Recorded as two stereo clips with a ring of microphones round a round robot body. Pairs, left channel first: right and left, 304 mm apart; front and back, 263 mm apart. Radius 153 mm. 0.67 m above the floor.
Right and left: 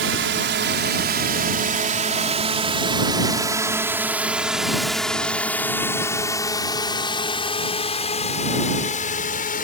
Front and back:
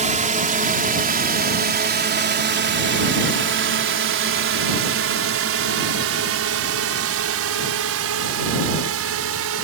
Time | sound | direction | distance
0.0 | a drone | 125° left | ?